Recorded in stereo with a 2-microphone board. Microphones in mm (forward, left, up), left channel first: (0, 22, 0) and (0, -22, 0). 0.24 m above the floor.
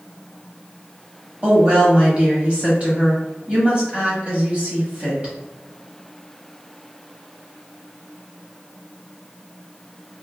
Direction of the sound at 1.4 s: 30° right (ahead or behind).